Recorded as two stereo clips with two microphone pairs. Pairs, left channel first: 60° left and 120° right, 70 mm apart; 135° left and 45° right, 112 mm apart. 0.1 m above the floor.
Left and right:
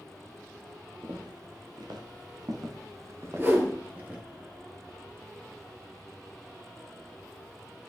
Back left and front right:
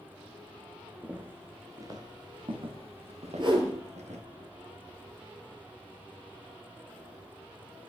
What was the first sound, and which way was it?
Footsteps, 120° right.